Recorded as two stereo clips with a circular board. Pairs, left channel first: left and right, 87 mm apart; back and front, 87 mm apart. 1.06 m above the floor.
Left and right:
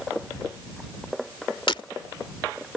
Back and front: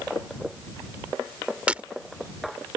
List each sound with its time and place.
1.7 s breaking glass: 75° left